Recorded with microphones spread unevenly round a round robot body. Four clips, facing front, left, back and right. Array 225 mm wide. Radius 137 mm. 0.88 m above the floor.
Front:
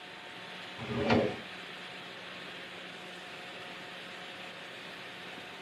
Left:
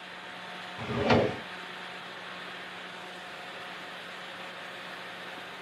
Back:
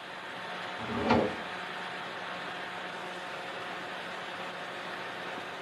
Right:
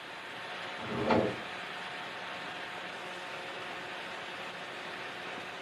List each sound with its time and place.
0.8 s a drawer: 80° left, 1.2 m